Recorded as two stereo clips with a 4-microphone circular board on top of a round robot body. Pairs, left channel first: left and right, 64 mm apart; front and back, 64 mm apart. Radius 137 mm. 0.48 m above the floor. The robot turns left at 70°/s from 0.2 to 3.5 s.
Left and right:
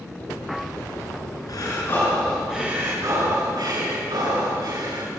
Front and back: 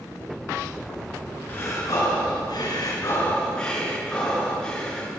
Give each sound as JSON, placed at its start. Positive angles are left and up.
{"t": 1.5, "sound": "breathing", "azimuth_deg": 65, "distance_m": 6.5}